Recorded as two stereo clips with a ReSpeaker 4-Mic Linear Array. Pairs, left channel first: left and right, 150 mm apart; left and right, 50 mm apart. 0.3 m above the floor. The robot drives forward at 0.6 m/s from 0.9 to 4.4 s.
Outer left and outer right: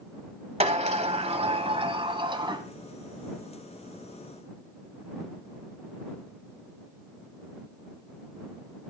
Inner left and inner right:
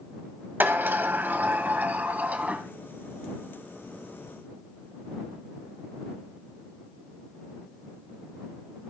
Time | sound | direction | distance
0.6 | a sliding door | 45° right (ahead or behind) | 1.5 m